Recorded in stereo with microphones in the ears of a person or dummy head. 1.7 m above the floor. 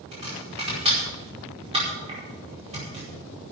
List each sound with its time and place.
0.1 s chopping: 30° right (ahead or behind), 5 m